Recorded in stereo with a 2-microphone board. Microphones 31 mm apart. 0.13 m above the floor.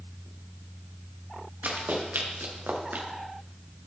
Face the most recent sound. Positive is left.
turn(degrees=-80)